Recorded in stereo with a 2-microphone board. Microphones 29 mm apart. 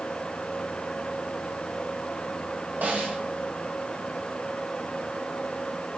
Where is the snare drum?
65° right (ahead or behind), 5 m.